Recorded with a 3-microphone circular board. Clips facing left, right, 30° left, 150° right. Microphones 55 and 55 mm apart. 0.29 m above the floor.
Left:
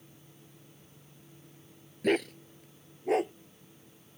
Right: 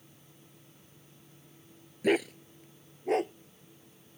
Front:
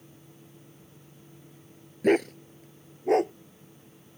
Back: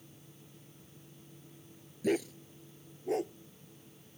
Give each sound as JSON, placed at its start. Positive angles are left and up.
{"t": 2.0, "sound": "a dog barking", "azimuth_deg": -5}